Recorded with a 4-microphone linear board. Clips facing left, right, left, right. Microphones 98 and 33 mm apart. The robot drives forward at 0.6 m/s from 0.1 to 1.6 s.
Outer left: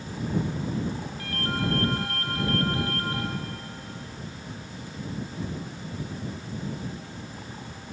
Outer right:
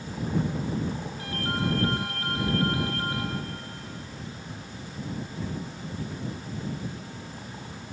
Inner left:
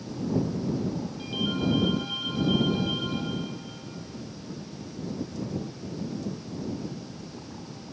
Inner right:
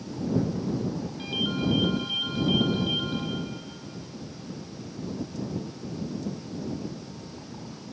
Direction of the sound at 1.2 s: 20° right (ahead or behind).